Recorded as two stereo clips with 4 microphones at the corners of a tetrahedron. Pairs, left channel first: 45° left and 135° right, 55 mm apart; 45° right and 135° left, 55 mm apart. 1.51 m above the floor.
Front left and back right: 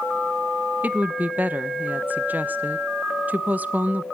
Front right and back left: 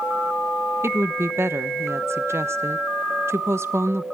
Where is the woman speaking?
170° left, 1.0 m.